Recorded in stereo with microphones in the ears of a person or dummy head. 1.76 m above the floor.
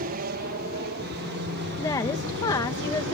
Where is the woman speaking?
20° left (ahead or behind).